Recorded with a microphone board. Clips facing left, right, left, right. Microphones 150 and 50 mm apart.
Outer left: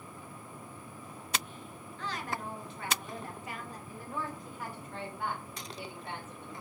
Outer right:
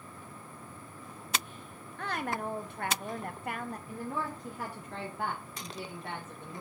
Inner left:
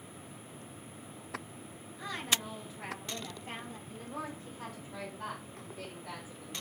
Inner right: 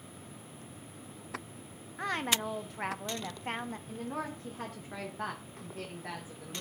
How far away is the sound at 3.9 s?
About 2 m.